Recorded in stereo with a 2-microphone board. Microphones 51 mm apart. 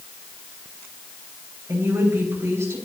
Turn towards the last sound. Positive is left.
turn(degrees=-85)